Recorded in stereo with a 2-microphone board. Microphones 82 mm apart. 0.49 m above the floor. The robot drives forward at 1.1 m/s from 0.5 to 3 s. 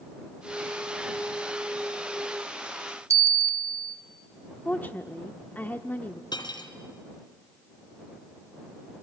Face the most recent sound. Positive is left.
turn(degrees=65)  # may be behind; listen again after turning